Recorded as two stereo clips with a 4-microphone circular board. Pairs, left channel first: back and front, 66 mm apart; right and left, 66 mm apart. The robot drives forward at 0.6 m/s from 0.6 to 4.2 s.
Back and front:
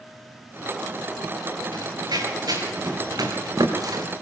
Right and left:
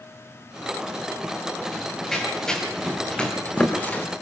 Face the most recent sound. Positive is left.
turn(degrees=-30)